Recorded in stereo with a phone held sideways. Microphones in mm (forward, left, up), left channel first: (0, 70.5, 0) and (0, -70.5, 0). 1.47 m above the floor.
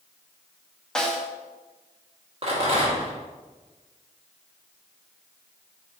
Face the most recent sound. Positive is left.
turn(degrees=-45)  # may be behind; listen again after turning